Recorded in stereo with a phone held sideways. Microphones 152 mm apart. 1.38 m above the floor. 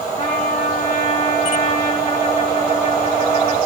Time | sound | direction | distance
0.2 | a trumpet | 45° left (ahead or behind) | 2.5 m